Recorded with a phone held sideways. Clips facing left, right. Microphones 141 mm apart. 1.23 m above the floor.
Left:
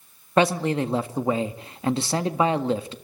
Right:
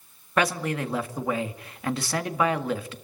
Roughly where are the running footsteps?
I don't hear running footsteps.